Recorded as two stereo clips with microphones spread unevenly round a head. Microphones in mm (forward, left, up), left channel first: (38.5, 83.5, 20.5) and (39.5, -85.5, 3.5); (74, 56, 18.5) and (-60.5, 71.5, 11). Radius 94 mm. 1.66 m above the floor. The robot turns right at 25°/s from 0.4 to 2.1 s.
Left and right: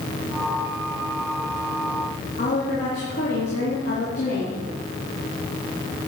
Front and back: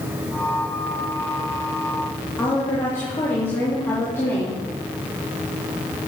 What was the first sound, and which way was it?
A woman speaking, 65° left.